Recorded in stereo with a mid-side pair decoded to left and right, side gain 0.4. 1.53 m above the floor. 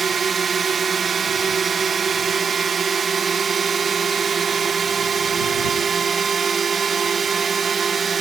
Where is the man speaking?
I don't hear a man speaking.